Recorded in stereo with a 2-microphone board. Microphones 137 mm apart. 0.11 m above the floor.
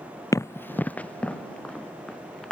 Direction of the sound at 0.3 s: 25° left (ahead or behind).